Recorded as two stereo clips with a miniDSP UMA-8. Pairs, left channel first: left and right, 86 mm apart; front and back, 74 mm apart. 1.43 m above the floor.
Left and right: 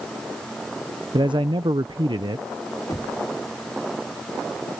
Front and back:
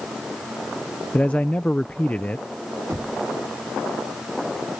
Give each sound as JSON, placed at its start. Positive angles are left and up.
{"t": 1.1, "sound": "a man speaking", "azimuth_deg": -70}
{"t": 2.9, "sound": "knocking", "azimuth_deg": 130}